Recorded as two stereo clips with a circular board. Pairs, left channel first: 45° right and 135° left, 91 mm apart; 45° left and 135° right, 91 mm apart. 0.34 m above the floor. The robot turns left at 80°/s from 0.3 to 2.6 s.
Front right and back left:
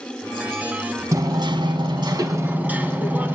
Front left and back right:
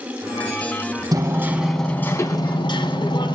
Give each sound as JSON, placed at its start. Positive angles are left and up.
{"t": 1.1, "sound": "hammering", "azimuth_deg": -175, "distance_m": 1.6}